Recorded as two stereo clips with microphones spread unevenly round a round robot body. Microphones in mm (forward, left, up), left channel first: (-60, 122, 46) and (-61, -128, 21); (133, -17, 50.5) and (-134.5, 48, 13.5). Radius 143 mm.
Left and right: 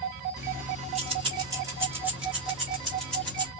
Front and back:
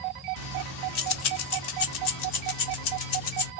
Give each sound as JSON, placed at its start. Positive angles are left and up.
{"t": 0.4, "sound": "keys jangling", "azimuth_deg": -30, "distance_m": 1.1}